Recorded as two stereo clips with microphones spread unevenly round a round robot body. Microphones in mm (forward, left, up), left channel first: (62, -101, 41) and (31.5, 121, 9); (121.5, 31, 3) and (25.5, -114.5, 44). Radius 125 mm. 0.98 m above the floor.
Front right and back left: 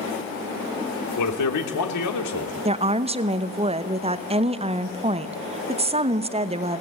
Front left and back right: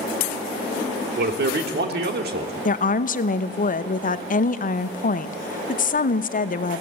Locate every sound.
1.2 s a man speaking: 95° right, 3 m
2.6 s a woman speaking: 45° left, 1.0 m